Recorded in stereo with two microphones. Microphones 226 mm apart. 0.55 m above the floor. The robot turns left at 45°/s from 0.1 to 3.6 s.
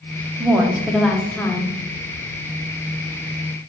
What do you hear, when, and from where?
0.4 s a woman speaking: 10° right (ahead or behind), 0.7 m; by 1.8 s 15° left (ahead or behind), 0.7 m